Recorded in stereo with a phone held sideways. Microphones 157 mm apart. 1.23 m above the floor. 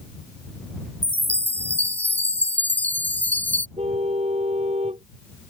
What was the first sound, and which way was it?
A chime, 10° left (ahead or behind).